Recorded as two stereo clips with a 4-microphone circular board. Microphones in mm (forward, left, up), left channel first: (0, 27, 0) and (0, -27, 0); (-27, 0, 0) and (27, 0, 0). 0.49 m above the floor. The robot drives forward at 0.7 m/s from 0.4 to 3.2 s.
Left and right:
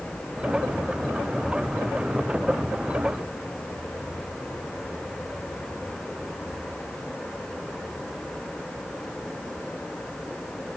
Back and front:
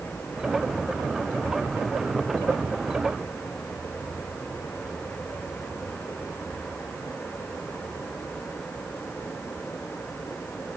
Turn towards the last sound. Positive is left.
No sound to turn to.